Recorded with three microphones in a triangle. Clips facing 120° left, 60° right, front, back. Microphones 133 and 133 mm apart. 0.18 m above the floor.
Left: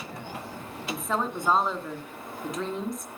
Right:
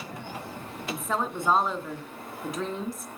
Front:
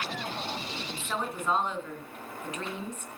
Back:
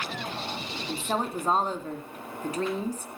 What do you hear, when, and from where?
0.9 s a woman speaking: 150° right, 2 m